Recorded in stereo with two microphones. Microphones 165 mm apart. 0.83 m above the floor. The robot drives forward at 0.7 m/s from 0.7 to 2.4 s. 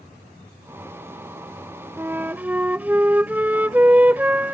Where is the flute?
15° right (ahead or behind); by 4.5 s 10° right (ahead or behind).